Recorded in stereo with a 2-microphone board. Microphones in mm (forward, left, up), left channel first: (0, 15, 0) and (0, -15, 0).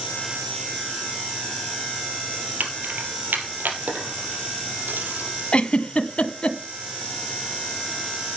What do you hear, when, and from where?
2.6 s keys jangling: 75° right (ahead or behind), 3.5 m; by 5.4 s 80° right, 5 m
5.5 s a giggle: 35° left (ahead or behind), 1.1 m